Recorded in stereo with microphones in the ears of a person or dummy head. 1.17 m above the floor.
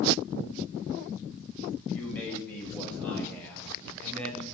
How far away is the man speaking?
About 6 m.